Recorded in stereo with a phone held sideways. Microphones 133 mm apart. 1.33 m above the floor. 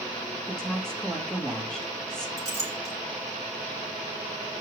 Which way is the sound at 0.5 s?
5° left (ahead or behind).